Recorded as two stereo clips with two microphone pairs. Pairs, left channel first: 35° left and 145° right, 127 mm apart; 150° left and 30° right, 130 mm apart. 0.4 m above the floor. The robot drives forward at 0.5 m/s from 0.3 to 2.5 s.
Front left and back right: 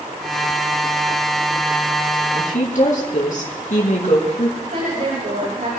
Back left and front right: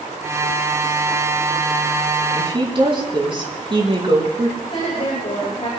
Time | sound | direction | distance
2.4 | a woman speaking | 20° left | 4.5 m
4.6 | a woman speaking | 160° right | 8 m